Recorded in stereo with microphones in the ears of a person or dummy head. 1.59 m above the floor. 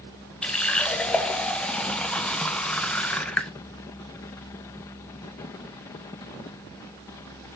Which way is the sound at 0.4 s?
10° left (ahead or behind).